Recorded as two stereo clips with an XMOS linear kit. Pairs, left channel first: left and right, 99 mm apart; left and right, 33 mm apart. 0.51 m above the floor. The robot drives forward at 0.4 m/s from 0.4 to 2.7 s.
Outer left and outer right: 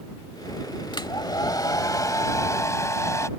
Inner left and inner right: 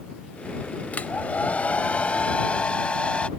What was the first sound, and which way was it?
A hair dryer, 50° left (ahead or behind).